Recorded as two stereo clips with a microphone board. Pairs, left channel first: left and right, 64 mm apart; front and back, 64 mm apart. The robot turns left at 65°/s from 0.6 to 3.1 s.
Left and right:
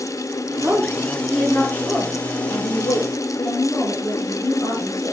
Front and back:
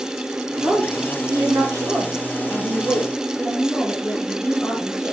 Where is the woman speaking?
135° right, 5 m; by 5.1 s 65° left, 5 m.